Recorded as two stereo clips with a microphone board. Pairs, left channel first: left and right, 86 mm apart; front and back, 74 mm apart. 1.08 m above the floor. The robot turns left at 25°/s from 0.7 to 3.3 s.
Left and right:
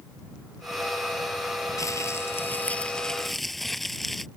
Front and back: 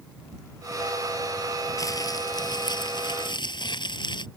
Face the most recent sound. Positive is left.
turn(degrees=0)